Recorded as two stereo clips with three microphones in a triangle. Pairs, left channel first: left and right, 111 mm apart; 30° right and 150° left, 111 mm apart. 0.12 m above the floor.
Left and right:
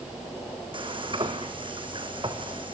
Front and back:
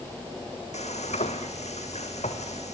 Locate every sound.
0.7 s frying: 45° right, 2.5 m